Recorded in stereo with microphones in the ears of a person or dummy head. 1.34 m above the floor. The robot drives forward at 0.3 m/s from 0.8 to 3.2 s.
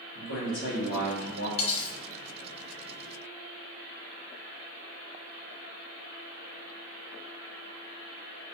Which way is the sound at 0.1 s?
60° left (ahead or behind).